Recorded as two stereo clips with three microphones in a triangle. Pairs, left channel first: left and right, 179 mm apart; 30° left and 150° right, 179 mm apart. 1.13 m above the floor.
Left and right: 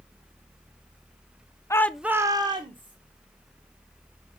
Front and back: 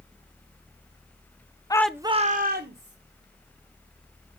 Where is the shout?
50° left, 0.5 m; by 3.0 s 150° right, 1.3 m.